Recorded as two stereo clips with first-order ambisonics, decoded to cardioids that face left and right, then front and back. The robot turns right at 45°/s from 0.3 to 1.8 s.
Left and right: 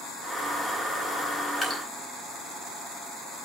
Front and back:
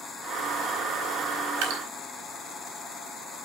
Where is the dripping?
175° left, 4 m; by 1.8 s 175° right, 4 m.